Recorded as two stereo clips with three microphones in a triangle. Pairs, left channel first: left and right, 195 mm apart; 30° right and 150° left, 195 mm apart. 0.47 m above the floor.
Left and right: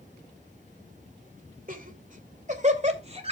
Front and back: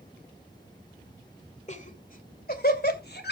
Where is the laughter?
70° right, 2 m; by 3.3 s 35° right, 2.5 m.